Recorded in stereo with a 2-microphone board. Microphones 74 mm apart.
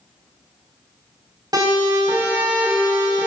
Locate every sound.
1.5 s a siren: 70° right (ahead or behind), 6 m; by 3.3 s 85° right, 7.5 m